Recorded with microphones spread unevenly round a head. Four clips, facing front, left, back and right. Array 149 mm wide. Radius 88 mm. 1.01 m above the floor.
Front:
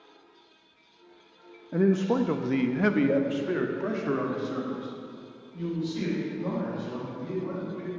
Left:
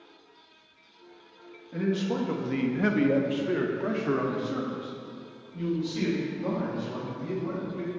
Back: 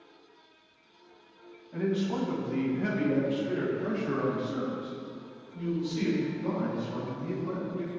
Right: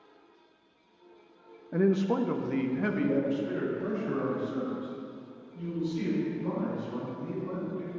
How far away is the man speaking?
About 0.9 m.